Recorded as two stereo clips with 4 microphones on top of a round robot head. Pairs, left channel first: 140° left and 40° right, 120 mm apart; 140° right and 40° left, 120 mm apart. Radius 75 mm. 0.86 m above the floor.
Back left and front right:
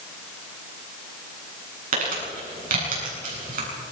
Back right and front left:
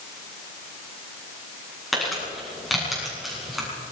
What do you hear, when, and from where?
1.9 s crumpling: 50° right, 8.5 m